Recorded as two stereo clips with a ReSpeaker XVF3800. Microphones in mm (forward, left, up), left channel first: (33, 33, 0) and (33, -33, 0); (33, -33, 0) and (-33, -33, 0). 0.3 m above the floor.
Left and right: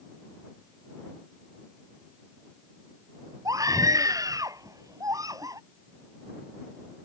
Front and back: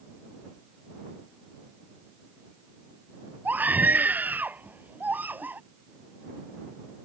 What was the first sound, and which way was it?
A scream, 115° right.